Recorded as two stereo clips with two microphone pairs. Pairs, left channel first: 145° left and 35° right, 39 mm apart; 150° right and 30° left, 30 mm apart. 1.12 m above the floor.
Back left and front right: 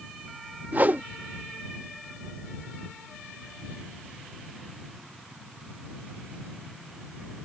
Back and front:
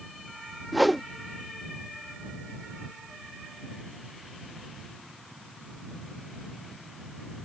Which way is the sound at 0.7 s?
50° right.